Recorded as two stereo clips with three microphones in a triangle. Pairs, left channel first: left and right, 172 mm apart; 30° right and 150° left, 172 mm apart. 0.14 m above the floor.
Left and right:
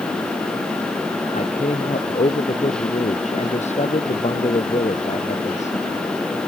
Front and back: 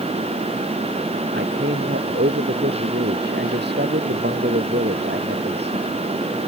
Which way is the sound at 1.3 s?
140° left.